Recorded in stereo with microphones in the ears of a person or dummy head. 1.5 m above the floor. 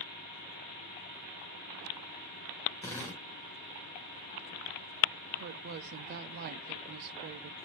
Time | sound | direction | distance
2.8 | a drill | 10° left (ahead or behind) | 1.4 m
5.4 | a woman speaking | 55° right (ahead or behind) | 0.5 m